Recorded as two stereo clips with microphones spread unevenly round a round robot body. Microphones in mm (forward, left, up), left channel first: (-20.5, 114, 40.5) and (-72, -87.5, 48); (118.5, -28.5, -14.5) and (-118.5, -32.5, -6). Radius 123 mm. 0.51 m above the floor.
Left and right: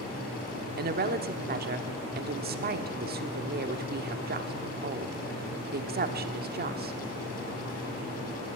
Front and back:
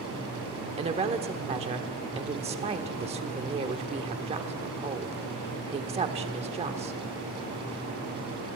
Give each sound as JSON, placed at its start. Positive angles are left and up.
{"t": 0.8, "sound": "a woman speaking", "azimuth_deg": -120, "distance_m": 1.3}